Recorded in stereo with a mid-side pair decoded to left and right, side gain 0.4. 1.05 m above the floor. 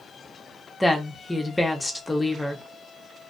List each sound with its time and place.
0.8 s a woman speaking: 15° left, 0.9 m